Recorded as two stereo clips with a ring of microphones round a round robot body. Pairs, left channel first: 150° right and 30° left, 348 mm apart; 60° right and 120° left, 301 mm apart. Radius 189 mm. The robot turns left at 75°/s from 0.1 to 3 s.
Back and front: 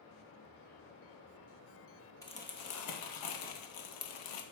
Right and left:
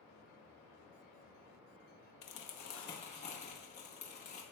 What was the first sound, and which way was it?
Crumpling, 70° right.